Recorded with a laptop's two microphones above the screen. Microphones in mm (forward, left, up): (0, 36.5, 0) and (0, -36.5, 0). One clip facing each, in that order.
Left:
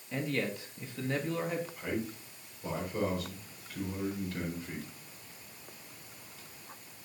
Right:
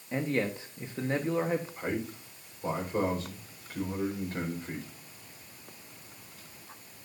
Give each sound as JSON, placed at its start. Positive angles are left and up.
{"t": 0.1, "sound": "a man speaking", "side_deg": -30, "distance_m": 1.4}
{"t": 1.8, "sound": "a man speaking", "side_deg": -40, "distance_m": 4.5}